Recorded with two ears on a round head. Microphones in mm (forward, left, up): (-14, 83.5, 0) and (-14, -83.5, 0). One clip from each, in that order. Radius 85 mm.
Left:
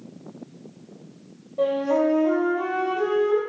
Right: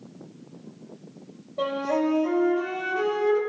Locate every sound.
1.6 s a flute: 25° right (ahead or behind), 3 m